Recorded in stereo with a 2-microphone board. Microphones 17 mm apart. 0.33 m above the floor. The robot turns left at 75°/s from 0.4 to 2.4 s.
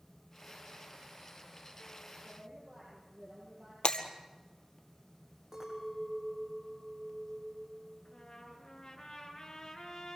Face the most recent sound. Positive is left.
turn(degrees=40)  # may be behind; listen again after turning